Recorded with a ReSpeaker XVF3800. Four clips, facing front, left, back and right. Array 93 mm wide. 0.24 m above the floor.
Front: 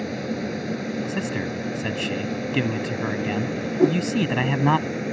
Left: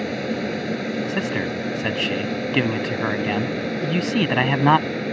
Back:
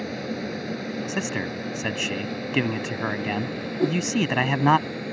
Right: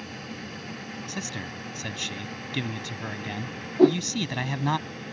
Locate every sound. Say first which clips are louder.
0.0 s an aircraft: left 14 dB, front 2 dB; 85° left; by 5.1 s 75° left
1.1 s a man speaking: left 12 dB, front 1 dB; 110° left
3.8 s a whoosh: right 9 dB, front 5 dB; 70° right